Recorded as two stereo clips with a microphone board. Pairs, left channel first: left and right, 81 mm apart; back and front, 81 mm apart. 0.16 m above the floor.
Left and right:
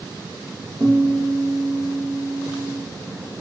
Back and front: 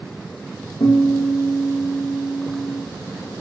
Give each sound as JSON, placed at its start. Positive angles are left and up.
{"t": 0.8, "sound": "a guitar", "azimuth_deg": -160, "distance_m": 5.5}